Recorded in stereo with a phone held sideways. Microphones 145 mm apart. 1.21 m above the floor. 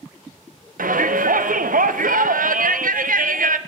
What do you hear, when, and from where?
0.8 s a shout: 80° right, 0.5 m